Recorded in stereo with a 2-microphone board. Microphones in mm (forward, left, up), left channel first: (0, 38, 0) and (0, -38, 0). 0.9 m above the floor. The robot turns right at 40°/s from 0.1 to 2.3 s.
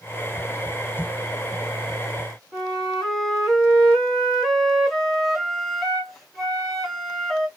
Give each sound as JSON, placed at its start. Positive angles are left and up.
{"t": 2.5, "sound": "a flute", "side_deg": 5, "distance_m": 1.7}